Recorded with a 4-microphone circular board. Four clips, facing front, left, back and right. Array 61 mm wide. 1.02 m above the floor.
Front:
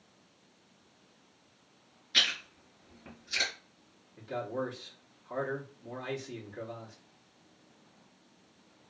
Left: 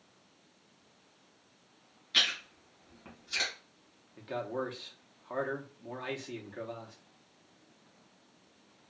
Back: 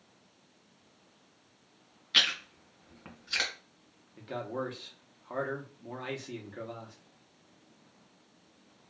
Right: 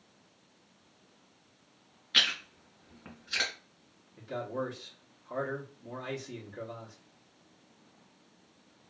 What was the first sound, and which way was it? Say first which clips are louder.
Chewing: right 2 dB, back 2 dB; 160° right.